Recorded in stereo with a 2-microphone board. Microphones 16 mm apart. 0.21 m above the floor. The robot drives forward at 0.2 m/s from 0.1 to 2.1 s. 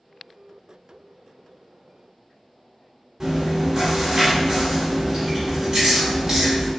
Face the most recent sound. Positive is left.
turn(degrees=-35)  # may be behind; listen again after turning